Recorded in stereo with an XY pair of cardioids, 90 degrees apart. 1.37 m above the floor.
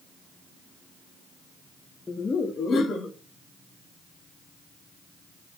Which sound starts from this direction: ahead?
Laughter, at 2.1 s.